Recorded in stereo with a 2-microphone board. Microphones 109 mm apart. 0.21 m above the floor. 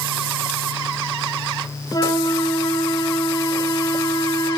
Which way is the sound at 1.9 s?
40° left (ahead or behind).